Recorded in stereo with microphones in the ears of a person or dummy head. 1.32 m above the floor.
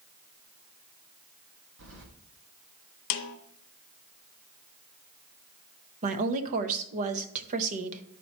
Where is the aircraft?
I don't hear an aircraft.